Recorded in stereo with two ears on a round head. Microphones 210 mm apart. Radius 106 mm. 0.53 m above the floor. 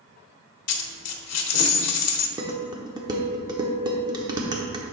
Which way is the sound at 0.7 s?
80° left.